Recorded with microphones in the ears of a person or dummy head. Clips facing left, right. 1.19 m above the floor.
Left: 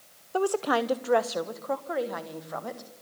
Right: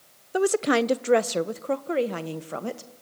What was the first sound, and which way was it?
A woman speaking, 15° right (ahead or behind).